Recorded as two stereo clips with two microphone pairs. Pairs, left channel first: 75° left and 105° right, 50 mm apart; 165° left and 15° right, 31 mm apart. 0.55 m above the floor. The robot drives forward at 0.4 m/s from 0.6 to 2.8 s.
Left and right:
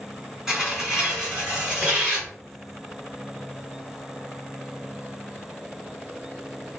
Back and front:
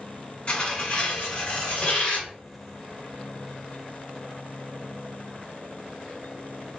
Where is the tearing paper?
175° left, 1.6 m; by 2.3 s straight behind, 2 m.